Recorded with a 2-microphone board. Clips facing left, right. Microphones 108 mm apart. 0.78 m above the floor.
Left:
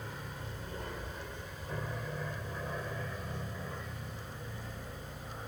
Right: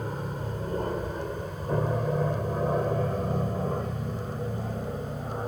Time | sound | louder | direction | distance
0.0 | an aircraft | right 11 dB | 45° right (ahead or behind) | ?